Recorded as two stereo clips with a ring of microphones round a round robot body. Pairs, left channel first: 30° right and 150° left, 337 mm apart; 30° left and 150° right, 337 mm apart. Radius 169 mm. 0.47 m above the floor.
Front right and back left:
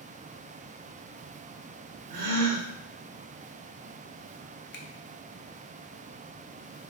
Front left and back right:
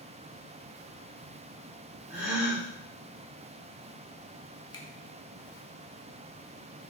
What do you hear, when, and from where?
2.1 s a gasp: 130° left, 1.2 m
4.7 s a finger snap: 35° right, 0.6 m